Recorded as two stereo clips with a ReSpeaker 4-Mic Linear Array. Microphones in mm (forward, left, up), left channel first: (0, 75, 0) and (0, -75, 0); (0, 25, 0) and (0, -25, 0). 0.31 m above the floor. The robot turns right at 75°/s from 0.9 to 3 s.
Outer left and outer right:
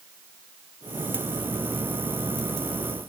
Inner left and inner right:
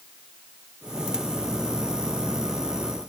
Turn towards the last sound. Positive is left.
No sound to turn to.